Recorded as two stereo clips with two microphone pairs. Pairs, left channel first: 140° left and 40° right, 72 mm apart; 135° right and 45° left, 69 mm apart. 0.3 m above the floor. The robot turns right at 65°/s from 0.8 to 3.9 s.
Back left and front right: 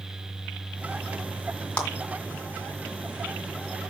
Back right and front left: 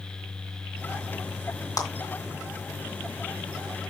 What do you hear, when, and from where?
1.8 s a clap: 150° right, 2 m; by 1.9 s 140° right, 2 m